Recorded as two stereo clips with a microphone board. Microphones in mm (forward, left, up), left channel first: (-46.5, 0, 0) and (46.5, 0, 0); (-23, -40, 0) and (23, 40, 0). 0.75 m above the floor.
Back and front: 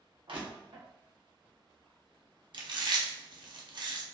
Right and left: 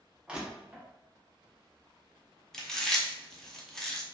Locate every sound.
0.3 s crushing: 20° right, 0.8 m
2.5 s chewing: 35° right, 0.6 m